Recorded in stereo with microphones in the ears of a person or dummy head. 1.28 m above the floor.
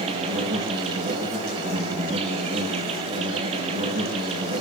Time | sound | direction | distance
0.0 | an insect | 40° right (ahead or behind) | 4.5 m